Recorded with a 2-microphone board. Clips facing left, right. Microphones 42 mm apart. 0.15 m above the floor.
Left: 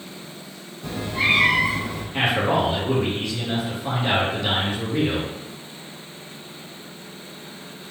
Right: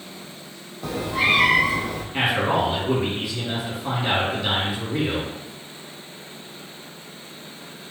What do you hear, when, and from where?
0.8 s a cat meowing: 85° right, 0.7 m
2.1 s a man speaking: 10° right (ahead or behind), 1.6 m